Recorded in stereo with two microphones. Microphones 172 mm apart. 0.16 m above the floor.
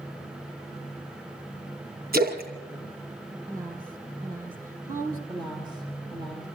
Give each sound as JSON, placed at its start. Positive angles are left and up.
{"t": 2.1, "sound": "a splash", "side_deg": -70, "distance_m": 2.0}
{"t": 3.5, "sound": "a woman speaking", "side_deg": -60, "distance_m": 2.5}
{"t": 5.3, "sound": "a woman speaking", "side_deg": -30, "distance_m": 4.5}